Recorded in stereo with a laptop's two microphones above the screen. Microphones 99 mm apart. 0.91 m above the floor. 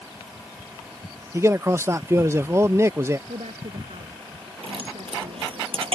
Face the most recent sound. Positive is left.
turn(degrees=-65)  # may be behind; listen again after turning